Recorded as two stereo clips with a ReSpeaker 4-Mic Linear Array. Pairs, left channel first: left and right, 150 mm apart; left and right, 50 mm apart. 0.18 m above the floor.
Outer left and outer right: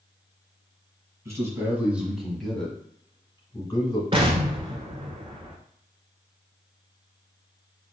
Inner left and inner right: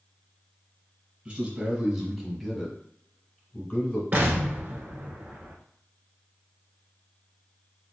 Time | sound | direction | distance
1.2 | a man speaking | 20° right (ahead or behind) | 1.4 m
4.1 | an explosion | 35° right (ahead or behind) | 1.0 m